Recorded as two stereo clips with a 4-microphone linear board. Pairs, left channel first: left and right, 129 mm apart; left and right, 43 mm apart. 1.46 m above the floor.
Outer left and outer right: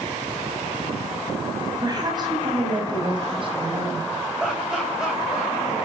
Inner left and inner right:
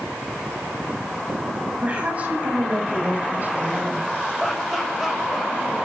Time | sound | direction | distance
1.8 | a woman speaking | 30° right (ahead or behind) | 9.5 m
4.4 | laughter | 5° right (ahead or behind) | 6.5 m